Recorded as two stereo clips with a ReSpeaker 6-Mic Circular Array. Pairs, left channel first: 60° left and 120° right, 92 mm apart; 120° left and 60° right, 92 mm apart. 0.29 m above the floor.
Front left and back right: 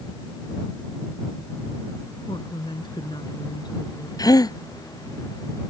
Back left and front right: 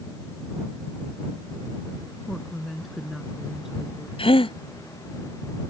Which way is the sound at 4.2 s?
105° left.